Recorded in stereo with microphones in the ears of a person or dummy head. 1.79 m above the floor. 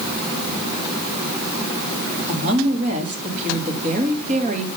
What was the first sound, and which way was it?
A woman speaking, 35° right (ahead or behind).